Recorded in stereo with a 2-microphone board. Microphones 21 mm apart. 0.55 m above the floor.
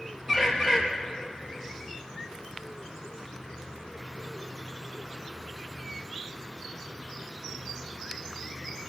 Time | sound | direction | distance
0.3 | a bird | 20° right (ahead or behind) | 4.5 m